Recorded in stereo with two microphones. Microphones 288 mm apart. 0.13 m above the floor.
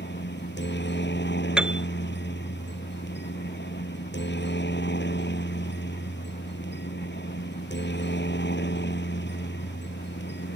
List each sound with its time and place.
0.0 s a helicopter: 40° left (ahead or behind)
1.6 s a piano: 5° right (ahead or behind)